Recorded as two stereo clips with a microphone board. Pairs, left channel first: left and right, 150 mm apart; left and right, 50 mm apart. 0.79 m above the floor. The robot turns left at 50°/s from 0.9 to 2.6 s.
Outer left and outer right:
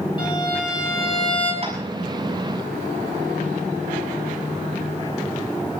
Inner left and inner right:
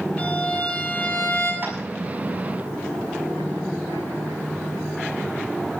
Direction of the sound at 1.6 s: 40° right (ahead or behind).